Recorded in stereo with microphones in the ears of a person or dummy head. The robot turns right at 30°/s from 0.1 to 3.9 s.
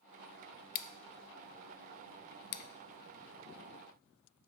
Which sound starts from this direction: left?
Scissors, at 0.8 s.